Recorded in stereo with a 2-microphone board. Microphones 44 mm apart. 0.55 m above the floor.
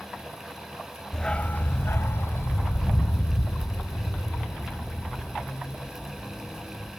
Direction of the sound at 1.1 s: 15° left (ahead or behind).